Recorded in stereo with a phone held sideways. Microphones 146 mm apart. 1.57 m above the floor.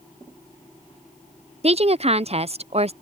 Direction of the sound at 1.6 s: 45° right (ahead or behind).